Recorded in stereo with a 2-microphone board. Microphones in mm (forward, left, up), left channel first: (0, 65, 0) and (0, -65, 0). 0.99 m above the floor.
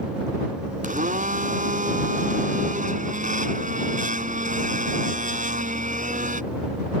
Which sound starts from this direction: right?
A blender, at 0.8 s.